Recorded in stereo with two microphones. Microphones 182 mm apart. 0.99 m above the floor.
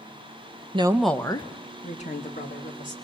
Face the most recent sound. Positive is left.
turn(degrees=50)  # may be behind; listen again after turning